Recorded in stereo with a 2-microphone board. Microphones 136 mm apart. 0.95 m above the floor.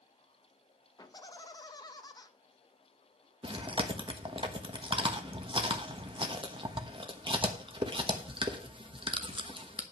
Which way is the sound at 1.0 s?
30° left (ahead or behind).